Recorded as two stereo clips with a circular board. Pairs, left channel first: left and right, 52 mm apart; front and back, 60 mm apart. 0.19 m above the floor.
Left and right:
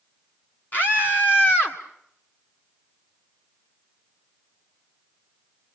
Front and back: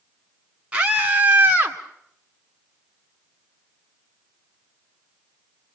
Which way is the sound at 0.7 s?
120° left.